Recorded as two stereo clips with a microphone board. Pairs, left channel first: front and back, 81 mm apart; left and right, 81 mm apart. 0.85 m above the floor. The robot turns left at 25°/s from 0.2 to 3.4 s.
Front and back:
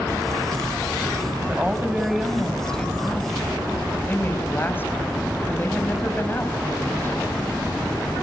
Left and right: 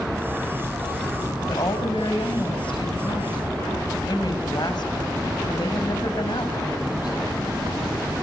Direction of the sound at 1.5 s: 110° left.